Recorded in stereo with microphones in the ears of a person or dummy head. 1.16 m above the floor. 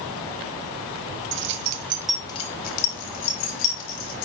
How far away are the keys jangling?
About 1.1 m.